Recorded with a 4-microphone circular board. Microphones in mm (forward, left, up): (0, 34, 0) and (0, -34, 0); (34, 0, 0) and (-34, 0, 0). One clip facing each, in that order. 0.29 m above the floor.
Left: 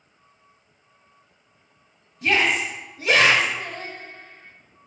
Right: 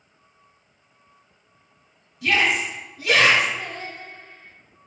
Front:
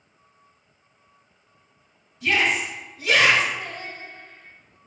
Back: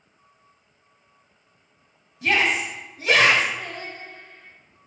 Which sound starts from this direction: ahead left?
Singing, at 3.6 s.